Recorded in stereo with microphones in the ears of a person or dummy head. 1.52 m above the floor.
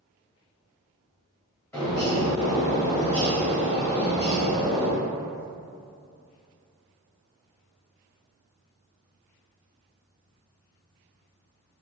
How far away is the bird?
About 1.3 m.